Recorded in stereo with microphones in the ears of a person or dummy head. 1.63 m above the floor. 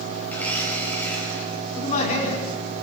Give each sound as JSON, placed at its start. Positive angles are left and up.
{"t": 0.3, "sound": "a blender", "side_deg": 10, "distance_m": 5.0}
{"t": 1.8, "sound": "a man speaking", "side_deg": 40, "distance_m": 5.0}